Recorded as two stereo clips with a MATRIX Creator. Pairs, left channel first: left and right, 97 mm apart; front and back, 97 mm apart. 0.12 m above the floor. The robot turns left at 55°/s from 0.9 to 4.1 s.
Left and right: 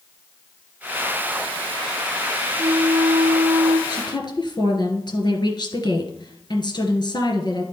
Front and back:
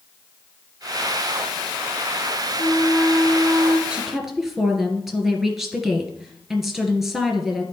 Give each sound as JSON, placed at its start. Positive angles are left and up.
{"t": 2.6, "sound": "a flute", "azimuth_deg": -70, "distance_m": 3.0}
{"t": 3.9, "sound": "a woman speaking", "azimuth_deg": 105, "distance_m": 1.8}